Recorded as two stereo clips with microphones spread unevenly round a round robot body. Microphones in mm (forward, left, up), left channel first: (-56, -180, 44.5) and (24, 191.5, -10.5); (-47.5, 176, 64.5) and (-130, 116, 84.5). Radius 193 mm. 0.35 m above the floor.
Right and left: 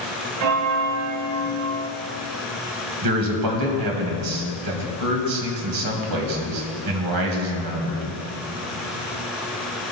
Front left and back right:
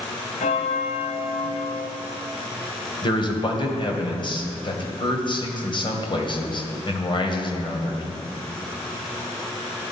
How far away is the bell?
About 0.6 m.